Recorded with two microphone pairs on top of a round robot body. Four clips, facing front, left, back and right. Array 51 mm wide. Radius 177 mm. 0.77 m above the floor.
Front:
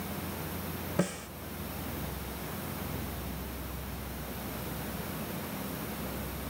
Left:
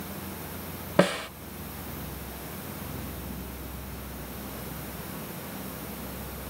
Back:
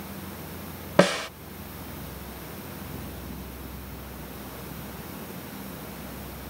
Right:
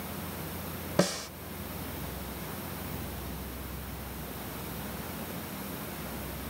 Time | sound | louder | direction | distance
1.0 | a snare drum | left 6 dB, back 13 dB | 160° left | ?